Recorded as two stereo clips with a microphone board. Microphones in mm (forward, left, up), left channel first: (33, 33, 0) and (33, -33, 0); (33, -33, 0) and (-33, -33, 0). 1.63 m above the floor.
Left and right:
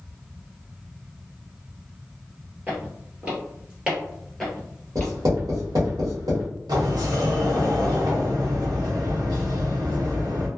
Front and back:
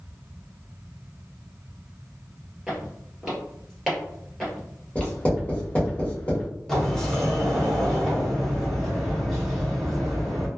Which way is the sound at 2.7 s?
105° right.